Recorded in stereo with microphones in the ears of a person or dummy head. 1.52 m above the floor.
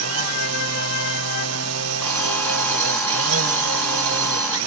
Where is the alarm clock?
15° left (ahead or behind), 5.5 m.